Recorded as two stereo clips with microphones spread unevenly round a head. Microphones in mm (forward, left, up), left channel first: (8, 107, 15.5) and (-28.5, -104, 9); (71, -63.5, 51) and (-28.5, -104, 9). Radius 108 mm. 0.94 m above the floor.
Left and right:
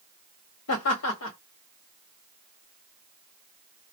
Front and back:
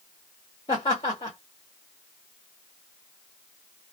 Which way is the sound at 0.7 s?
90° left.